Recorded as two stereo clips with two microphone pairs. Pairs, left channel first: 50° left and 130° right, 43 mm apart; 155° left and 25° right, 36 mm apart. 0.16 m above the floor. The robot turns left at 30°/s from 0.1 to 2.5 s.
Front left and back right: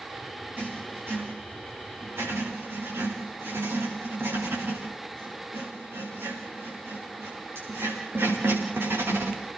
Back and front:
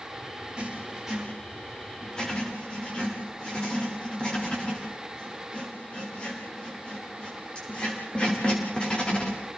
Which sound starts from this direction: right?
Writing, at 0.6 s.